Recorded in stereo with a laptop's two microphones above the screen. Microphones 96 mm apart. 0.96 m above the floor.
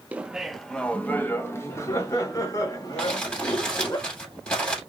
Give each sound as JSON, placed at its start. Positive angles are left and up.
{"t": 0.1, "sound": "laughter", "side_deg": -15, "distance_m": 0.6}
{"t": 3.0, "sound": "crumpling", "side_deg": 10, "distance_m": 3.0}